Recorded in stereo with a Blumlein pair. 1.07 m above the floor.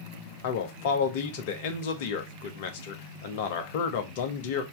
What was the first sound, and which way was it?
A man speaking, 50° left.